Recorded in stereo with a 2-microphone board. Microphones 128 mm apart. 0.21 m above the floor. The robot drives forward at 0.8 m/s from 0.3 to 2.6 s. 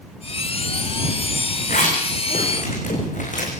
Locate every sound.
1.7 s a zipper: 85° left, 6 m; by 3.5 s 80° left, 6 m